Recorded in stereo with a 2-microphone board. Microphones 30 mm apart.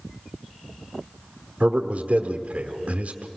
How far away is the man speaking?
About 1.2 m.